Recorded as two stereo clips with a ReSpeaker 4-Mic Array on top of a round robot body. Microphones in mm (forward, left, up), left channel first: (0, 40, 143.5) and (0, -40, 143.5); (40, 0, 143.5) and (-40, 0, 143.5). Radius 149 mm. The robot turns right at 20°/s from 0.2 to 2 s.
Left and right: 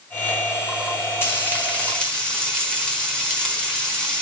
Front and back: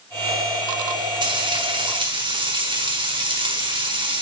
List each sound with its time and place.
1.2 s frying: 155° left, 5.5 m; by 4.2 s 175° left, 5.5 m